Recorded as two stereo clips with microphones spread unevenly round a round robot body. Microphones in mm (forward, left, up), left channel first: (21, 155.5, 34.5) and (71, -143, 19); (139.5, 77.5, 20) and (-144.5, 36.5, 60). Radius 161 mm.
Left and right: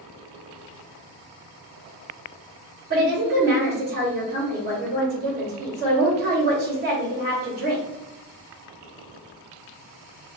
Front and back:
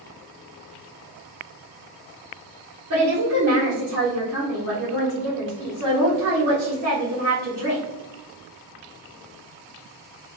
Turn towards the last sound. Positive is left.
turn(degrees=-135)